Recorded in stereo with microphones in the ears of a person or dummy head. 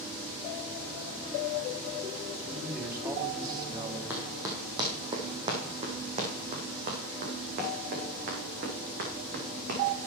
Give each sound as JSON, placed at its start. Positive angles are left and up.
{"t": 2.4, "sound": "a man speaking", "side_deg": -5, "distance_m": 3.0}
{"t": 4.1, "sound": "running footsteps", "side_deg": -10, "distance_m": 2.5}